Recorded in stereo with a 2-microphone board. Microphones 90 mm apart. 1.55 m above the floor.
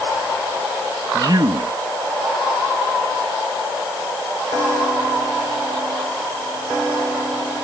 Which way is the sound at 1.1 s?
50° right (ahead or behind).